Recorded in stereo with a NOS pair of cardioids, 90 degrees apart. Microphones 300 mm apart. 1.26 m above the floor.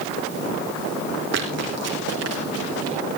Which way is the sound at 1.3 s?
60° right.